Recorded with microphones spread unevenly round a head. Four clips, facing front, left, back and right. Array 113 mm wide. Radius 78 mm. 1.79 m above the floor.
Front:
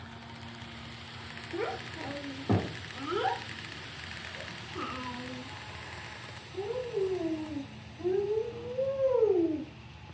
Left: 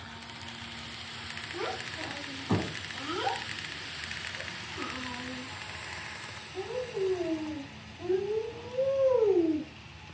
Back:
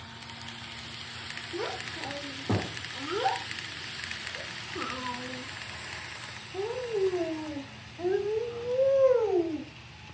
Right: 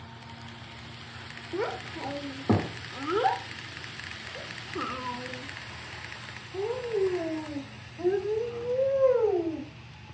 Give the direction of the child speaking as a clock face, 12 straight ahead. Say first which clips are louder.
Right 5 dB, even; 2 o'clock.